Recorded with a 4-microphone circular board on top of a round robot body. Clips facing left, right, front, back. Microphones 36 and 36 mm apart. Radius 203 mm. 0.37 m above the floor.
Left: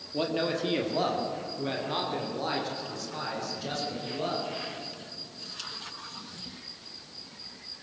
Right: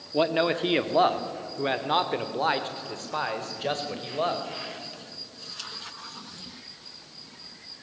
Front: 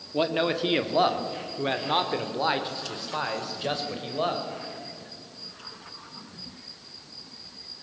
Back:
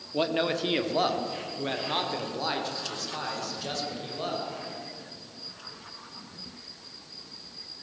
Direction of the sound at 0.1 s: 80° right.